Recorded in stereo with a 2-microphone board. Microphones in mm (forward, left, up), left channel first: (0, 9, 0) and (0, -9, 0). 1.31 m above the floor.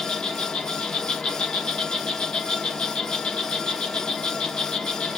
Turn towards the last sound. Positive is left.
turn(degrees=65)  # may be behind; listen again after turning